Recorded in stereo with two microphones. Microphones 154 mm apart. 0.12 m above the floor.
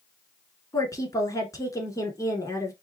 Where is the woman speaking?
20° left (ahead or behind), 1.2 m.